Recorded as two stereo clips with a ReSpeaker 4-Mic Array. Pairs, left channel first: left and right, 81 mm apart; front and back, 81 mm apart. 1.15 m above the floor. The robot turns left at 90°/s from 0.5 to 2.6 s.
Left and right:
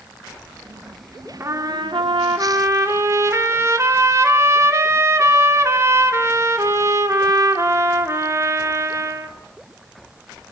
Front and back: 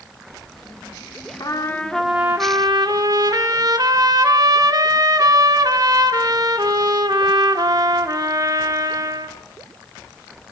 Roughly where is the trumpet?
Ahead right.